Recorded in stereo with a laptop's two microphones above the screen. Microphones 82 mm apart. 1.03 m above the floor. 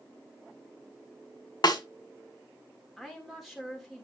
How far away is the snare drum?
About 1.6 m.